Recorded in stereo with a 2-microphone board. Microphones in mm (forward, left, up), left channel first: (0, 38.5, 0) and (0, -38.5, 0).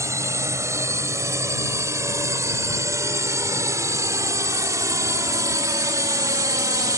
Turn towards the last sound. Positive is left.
turn(degrees=-50)  # may be behind; listen again after turning